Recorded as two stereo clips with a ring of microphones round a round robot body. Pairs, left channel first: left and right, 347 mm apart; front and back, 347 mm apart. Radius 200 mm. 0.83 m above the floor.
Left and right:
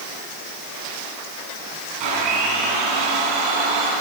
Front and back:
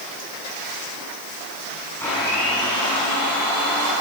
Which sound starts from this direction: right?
A blender, at 2.0 s.